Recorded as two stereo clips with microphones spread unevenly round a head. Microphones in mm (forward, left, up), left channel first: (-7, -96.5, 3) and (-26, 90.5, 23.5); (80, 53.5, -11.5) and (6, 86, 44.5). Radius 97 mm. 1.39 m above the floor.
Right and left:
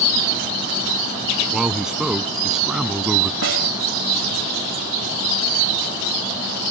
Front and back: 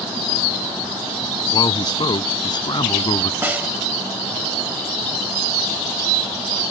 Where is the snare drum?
110° left.